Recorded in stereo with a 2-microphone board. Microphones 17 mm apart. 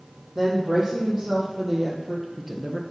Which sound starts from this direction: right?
A woman speaking, at 0.3 s.